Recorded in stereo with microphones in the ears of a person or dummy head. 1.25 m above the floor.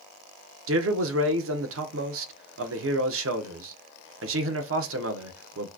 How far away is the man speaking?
About 1.0 m.